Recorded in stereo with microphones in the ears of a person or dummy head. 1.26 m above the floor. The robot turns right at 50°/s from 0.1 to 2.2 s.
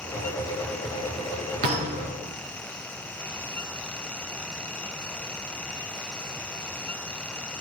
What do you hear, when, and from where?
1.6 s a thud: 45° right (ahead or behind), 3.5 m; by 2.3 s 20° right (ahead or behind), 3.5 m